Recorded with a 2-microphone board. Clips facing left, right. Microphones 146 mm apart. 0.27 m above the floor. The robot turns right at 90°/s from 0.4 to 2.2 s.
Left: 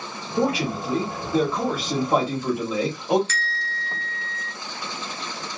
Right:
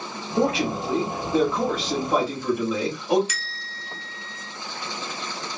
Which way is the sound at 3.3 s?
15° right (ahead or behind).